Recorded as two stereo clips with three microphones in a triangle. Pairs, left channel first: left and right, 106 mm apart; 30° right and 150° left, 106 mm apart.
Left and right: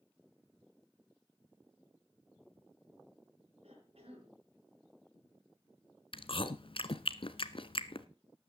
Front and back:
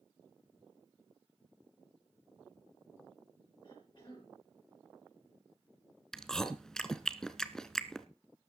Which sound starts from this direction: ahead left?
Chewing, at 6.1 s.